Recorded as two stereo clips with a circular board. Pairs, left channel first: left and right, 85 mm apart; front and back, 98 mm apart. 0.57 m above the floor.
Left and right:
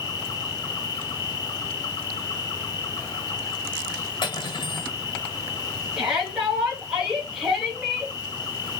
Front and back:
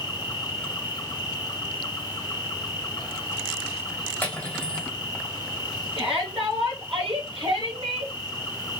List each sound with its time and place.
0.0 s an insect: 45° left, 1.4 m
4.2 s cutlery clinking: 75° left, 1.7 m
6.0 s a shout: 170° right, 3 m